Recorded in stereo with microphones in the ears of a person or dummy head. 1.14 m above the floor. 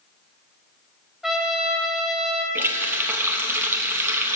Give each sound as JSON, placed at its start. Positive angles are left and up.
{"t": 1.2, "sound": "a trumpet", "side_deg": 0, "distance_m": 0.6}
{"t": 2.5, "sound": "a running tap", "side_deg": -10, "distance_m": 0.6}